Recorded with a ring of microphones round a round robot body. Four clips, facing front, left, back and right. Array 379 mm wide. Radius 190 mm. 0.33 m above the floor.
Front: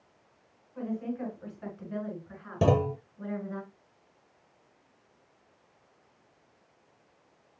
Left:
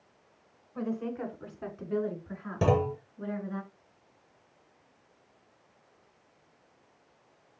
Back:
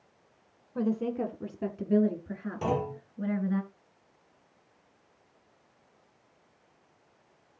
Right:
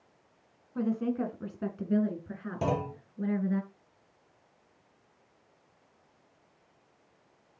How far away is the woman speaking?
About 3.5 m.